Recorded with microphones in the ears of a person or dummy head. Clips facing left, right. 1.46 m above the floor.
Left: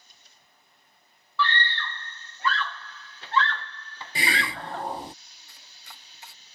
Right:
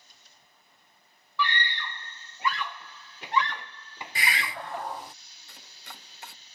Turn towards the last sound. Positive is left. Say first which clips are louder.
# right 4 dB
turn(degrees=-50)  # may be behind; listen again after turning